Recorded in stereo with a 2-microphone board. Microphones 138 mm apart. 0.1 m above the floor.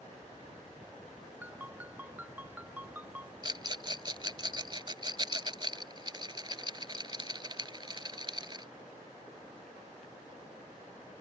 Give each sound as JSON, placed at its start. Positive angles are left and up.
{"t": 1.4, "sound": "a ringtone", "side_deg": -10}
{"t": 3.4, "sound": "a rattle", "side_deg": -35}